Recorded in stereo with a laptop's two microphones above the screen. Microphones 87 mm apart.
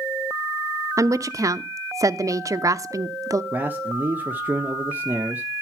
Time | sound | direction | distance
1.0 | a woman speaking | 40° right (ahead or behind) | 0.7 m
3.5 | a man speaking | 20° right (ahead or behind) | 1.1 m